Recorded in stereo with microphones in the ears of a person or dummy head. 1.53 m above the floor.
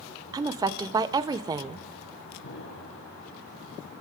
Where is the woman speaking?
20° right (ahead or behind), 0.6 m.